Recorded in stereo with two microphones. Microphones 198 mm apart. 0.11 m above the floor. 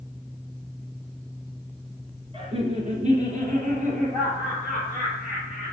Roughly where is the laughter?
Right.